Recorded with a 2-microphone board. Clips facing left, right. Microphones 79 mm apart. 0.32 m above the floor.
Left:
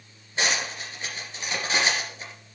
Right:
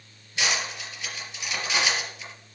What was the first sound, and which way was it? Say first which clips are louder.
Cutlery clinking: left 1 dB; 40° left (ahead or behind).